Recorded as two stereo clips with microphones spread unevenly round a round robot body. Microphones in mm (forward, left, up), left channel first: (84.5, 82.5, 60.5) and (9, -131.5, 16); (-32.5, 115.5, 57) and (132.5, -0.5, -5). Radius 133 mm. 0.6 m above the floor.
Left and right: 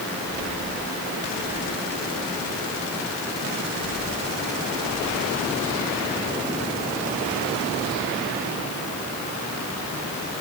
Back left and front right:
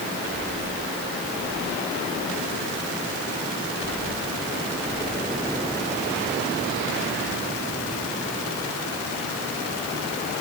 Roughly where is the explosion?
No explosion in this recording.